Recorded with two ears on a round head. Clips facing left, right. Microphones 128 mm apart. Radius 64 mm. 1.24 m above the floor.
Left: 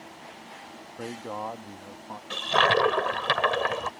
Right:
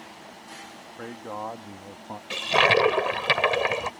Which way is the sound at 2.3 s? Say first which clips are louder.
Right 2 dB; 15° right (ahead or behind).